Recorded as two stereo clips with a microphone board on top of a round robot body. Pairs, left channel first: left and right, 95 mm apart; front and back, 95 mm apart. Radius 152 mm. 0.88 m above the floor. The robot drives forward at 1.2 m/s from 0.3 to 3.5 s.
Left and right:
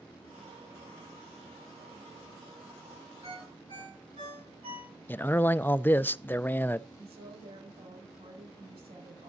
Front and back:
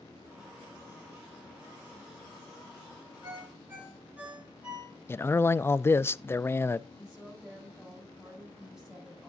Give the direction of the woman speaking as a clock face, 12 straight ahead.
3 o'clock.